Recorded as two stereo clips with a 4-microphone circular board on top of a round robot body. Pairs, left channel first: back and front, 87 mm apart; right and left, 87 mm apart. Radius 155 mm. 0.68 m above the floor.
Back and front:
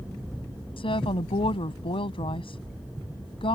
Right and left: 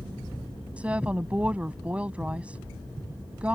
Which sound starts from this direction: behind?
A woman speaking, at 0.8 s.